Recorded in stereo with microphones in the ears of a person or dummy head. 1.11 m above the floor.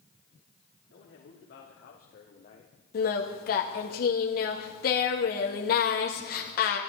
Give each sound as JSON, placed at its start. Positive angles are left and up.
{"t": 0.9, "sound": "a man speaking", "side_deg": 60, "distance_m": 3.0}
{"t": 2.9, "sound": "singing", "side_deg": 55, "distance_m": 2.0}